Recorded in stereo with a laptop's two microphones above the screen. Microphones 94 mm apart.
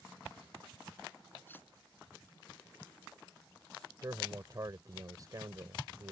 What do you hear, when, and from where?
1.5 s cutlery clinking: 20° left (ahead or behind)
4.0 s a man speaking: 40° right (ahead or behind)